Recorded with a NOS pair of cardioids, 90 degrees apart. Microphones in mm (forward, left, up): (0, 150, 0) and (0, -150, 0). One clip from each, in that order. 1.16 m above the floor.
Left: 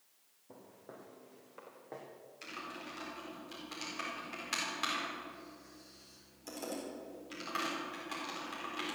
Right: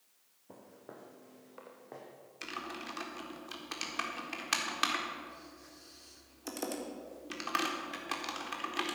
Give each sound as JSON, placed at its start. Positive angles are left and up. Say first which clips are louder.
{"t": 0.5, "sound": "footsteps", "louder": "right 2 dB", "azimuth_deg": -30, "distance_m": 4.5}
{"t": 2.4, "sound": "typing on a keyboard", "louder": "right 4 dB", "azimuth_deg": -55, "distance_m": 4.0}